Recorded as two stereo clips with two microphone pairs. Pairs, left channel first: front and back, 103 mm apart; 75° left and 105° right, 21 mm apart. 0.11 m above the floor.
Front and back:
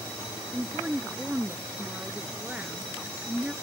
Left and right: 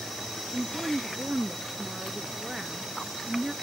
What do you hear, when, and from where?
0.5 s a woman speaking: 120° right